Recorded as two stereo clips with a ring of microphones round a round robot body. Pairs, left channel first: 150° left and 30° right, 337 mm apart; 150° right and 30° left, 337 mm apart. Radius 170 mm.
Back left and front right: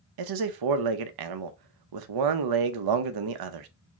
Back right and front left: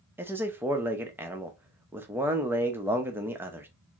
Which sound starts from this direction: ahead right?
A man speaking, at 0.2 s.